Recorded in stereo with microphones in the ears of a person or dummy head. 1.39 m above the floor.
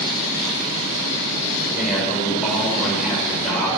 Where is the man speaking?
5° right (ahead or behind), 4.5 m.